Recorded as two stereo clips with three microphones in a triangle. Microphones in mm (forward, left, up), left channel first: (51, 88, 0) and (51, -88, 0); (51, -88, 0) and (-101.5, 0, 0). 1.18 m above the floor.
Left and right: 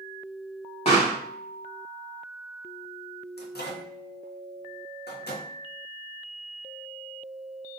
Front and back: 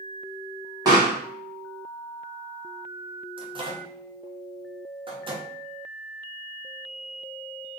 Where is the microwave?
95° left, 0.6 m.